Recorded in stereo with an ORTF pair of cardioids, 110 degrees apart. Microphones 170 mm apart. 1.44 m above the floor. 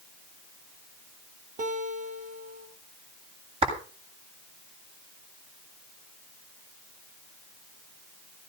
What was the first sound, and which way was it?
A guitar, 45° right.